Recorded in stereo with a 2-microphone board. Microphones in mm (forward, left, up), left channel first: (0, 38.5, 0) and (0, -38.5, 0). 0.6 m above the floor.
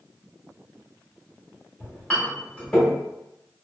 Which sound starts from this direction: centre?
A clink, at 1.8 s.